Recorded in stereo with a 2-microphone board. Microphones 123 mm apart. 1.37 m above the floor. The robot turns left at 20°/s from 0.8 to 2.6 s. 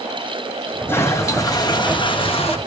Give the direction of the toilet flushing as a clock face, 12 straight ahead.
7 o'clock.